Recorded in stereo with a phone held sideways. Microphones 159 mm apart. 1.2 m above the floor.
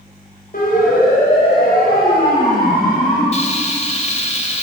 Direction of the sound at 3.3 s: 45° left (ahead or behind).